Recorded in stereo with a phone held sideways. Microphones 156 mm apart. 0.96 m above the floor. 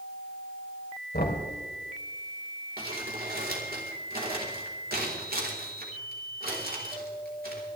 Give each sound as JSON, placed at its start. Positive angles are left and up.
{"t": 1.1, "sound": "knocking", "side_deg": 75, "distance_m": 2.5}
{"t": 2.8, "sound": "crumpling", "side_deg": -70, "distance_m": 4.0}